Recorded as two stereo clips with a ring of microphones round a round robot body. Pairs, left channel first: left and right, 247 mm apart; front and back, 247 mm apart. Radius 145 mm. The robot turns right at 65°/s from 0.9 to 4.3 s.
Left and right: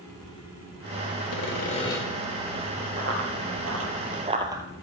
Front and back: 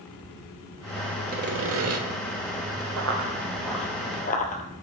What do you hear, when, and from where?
1.3 s sawing: 125° left, 1.5 m; by 2.0 s 175° left, 1.5 m
3.0 s running footsteps: 150° right, 1.5 m; by 4.6 s 25° right, 0.9 m